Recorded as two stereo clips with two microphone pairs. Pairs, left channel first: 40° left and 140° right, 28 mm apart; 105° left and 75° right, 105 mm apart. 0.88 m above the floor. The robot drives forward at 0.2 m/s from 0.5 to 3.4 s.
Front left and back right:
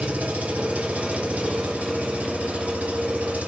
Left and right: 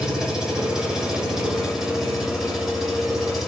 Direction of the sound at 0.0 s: 155° right.